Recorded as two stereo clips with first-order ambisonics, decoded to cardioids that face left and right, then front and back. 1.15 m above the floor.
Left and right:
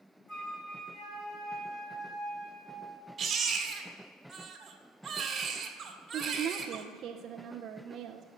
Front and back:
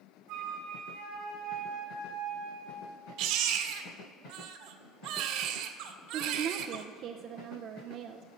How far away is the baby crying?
About 1.5 m.